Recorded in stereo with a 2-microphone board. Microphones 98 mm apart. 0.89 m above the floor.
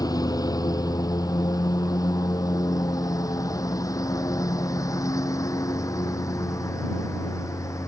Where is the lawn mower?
40° left (ahead or behind); by 7.9 s 35° left (ahead or behind).